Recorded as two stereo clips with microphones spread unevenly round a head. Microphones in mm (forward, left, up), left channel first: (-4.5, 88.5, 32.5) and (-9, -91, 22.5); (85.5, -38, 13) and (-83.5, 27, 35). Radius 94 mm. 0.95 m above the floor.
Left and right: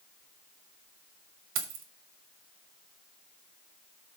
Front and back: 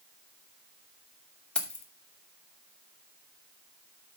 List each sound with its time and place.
1.6 s keys jangling: 105° right, 1.4 m